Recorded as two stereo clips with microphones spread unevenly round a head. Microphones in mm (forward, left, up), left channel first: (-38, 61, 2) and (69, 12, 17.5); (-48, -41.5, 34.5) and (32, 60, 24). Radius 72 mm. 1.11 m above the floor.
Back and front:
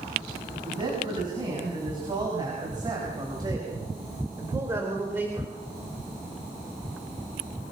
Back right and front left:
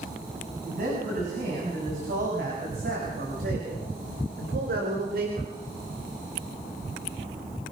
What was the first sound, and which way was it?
A man speaking, 20° left.